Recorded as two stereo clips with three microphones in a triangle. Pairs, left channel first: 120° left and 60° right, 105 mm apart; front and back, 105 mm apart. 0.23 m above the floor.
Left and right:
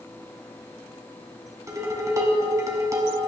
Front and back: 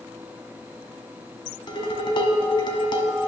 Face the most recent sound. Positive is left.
turn(degrees=-15)